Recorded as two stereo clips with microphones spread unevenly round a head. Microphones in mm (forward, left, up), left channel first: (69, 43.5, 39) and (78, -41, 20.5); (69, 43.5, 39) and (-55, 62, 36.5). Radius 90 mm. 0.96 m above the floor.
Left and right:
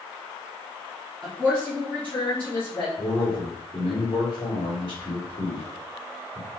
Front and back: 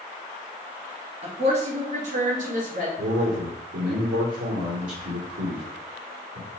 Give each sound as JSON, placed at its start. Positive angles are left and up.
{"t": 1.2, "sound": "a woman speaking", "azimuth_deg": -170, "distance_m": 1.2}
{"t": 3.0, "sound": "a man speaking", "azimuth_deg": 155, "distance_m": 2.5}